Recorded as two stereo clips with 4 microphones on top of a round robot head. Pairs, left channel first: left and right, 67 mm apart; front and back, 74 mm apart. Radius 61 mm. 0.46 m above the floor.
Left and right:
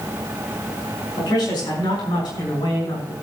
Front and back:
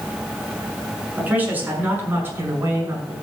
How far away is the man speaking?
About 6.5 m.